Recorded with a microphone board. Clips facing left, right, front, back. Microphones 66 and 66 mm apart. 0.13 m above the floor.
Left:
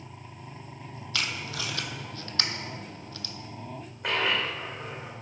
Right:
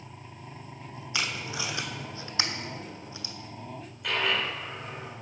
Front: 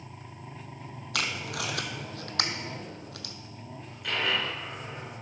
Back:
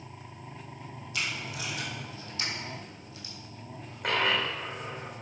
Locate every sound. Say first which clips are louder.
1.1 s tape being pulled: right 1 dB, front 3 dB; 15° right, 0.8 m
4.0 s a dropped coin: left 1 dB, back 2 dB; 140° left, 3 m